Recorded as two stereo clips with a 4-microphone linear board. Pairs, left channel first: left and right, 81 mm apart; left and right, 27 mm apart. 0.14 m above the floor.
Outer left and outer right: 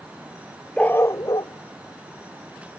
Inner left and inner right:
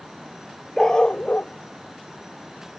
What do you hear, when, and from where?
0.8 s a dog barking: 10° left (ahead or behind); by 2.8 s 80° left